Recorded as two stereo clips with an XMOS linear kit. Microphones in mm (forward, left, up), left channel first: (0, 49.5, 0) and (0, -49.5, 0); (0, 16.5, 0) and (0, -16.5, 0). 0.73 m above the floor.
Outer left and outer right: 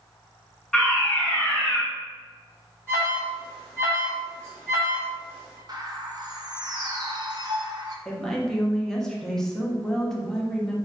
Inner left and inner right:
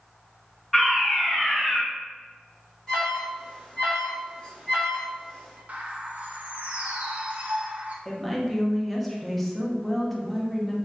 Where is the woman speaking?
5° left (ahead or behind), 0.6 m.